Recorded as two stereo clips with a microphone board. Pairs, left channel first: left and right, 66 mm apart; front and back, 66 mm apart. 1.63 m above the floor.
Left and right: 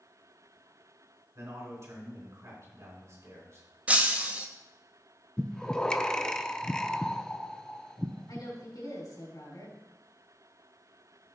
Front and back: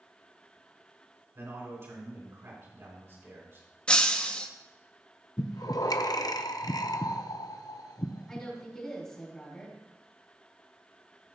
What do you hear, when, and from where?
1.4 s a man speaking: 130° right, 4 m
3.9 s breaking glass: 55° right, 0.7 m
5.4 s breathing: 10° left, 0.5 m
8.3 s a woman speaking: 80° left, 3.5 m